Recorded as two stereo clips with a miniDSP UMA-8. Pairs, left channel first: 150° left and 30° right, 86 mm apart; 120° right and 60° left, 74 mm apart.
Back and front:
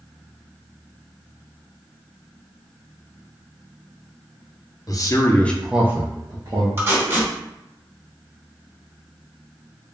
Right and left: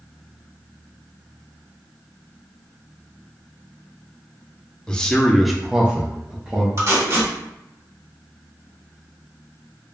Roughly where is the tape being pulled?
Ahead left.